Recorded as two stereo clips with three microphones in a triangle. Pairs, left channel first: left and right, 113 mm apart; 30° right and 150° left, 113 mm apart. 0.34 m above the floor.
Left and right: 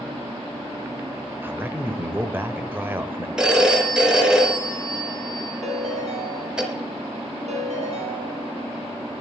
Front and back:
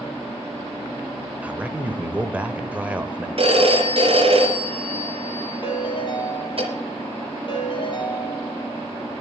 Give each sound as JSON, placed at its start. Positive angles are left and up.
{"t": 1.4, "sound": "a man speaking", "azimuth_deg": -145, "distance_m": 1.1}
{"t": 3.4, "sound": "a phone ringing", "azimuth_deg": -175, "distance_m": 3.5}
{"t": 5.6, "sound": "a ringtone", "azimuth_deg": -75, "distance_m": 3.5}